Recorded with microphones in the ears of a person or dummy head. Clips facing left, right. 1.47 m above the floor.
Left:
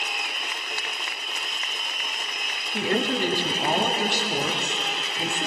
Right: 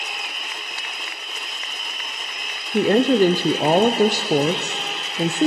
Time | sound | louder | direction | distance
2.7 | a woman speaking | right 10 dB | 40° right (ahead or behind) | 0.7 m